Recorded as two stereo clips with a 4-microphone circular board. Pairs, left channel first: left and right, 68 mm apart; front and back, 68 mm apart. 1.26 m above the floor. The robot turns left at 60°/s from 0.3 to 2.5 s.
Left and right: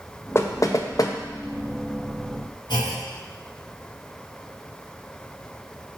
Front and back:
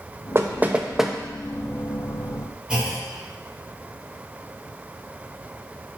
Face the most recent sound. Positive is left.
turn(degrees=100)